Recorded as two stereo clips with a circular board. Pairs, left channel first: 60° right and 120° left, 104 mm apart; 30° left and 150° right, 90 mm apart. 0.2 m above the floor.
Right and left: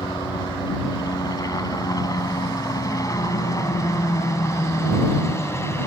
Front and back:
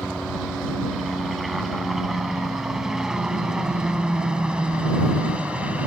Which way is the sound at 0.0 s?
60° right.